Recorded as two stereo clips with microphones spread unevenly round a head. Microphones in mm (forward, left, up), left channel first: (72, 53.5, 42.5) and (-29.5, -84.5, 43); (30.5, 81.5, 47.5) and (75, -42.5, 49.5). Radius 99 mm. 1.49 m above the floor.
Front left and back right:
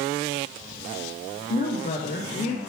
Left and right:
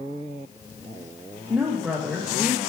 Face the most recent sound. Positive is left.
turn(degrees=5)